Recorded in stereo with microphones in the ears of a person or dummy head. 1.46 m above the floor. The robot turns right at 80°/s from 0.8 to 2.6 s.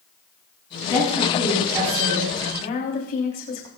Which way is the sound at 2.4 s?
65° left (ahead or behind).